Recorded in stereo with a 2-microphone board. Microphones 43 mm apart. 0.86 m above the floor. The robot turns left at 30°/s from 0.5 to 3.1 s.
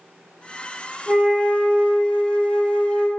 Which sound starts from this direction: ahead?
A flute, at 1.1 s.